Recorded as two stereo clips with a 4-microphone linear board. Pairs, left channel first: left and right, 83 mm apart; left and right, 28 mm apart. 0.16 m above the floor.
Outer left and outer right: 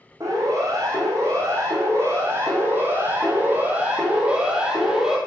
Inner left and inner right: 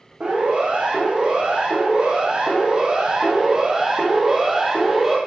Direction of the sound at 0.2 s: 40° right (ahead or behind).